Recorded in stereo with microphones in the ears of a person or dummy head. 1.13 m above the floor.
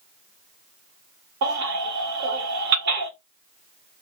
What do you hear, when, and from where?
1.4 s a baby crying: 40° right (ahead or behind), 1.0 m